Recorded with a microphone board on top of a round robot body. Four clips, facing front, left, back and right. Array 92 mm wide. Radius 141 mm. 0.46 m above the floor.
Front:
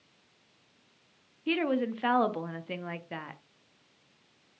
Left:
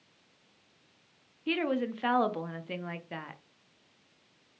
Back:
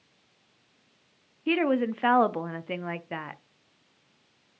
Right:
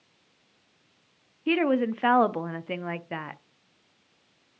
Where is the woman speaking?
125° right, 0.7 m.